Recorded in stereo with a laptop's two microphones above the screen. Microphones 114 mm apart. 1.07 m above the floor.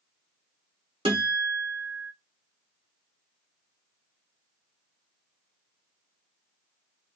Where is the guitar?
50° right (ahead or behind), 0.7 m.